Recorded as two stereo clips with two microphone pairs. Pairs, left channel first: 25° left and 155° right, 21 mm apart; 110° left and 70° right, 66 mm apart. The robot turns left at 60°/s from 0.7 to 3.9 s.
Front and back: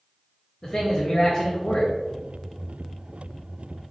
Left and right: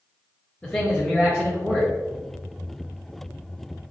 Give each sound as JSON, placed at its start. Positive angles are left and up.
{"t": 0.6, "sound": "a man speaking", "azimuth_deg": 65, "distance_m": 0.9}